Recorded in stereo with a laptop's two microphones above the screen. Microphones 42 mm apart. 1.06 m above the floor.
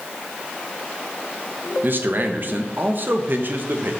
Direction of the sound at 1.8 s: 55° right (ahead or behind).